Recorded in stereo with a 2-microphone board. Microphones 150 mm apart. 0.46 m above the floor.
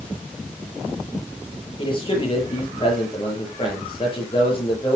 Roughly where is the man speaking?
Left.